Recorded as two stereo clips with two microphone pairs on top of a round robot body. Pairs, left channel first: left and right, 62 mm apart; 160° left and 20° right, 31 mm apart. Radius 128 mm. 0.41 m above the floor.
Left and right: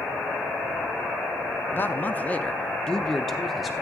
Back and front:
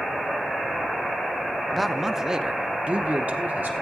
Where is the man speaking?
115° left, 1.0 m; by 3.7 s 5° right, 1.1 m.